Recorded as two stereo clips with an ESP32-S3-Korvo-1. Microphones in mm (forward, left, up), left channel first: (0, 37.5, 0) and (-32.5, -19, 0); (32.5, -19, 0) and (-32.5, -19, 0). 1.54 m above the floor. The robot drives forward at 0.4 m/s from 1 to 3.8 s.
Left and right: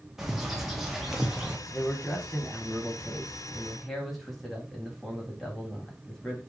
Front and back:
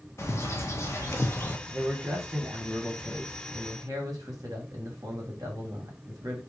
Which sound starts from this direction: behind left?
A man speaking, at 1.7 s.